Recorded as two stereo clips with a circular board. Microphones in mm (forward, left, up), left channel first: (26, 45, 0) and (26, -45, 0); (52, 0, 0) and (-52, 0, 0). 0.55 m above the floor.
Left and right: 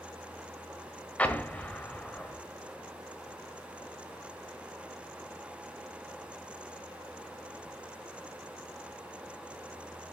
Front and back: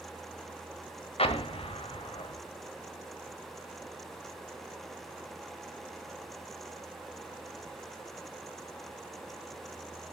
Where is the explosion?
15° left, 1.5 m.